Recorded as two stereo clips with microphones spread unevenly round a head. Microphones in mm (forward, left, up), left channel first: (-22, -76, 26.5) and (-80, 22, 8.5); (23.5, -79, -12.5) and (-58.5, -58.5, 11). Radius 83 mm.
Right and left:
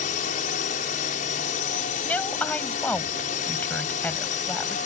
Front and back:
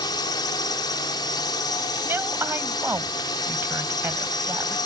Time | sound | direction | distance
0.0 | a drone | 50° right | ?
2.0 | a woman speaking | 135° right | ?